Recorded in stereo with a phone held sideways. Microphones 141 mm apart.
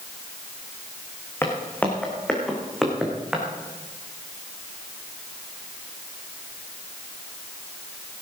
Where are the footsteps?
15° left (ahead or behind), 3.5 m; by 3.5 s 5° right (ahead or behind), 4 m.